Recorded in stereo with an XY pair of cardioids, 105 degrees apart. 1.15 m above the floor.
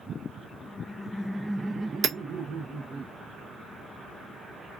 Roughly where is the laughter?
Ahead left.